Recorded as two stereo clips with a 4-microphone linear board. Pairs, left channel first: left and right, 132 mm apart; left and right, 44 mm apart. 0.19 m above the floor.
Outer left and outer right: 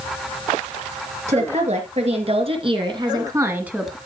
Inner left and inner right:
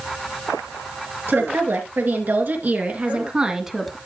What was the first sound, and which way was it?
A woman speaking, 60° right (ahead or behind).